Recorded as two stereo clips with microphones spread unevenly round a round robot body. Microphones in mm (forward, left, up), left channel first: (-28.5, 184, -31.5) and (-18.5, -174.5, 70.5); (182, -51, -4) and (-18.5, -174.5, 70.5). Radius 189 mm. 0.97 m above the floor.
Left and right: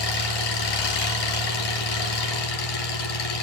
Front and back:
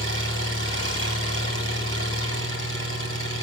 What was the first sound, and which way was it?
An engine running, 115° left.